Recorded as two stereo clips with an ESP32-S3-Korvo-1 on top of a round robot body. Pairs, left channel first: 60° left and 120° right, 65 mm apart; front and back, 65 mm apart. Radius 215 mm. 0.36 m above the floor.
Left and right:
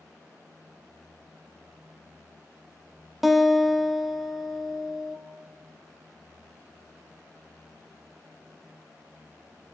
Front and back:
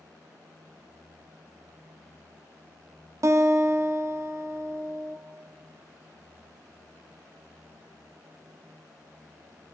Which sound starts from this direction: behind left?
A guitar, at 3.2 s.